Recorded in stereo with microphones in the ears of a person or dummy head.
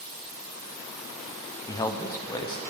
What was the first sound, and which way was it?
A man speaking, 20° left (ahead or behind).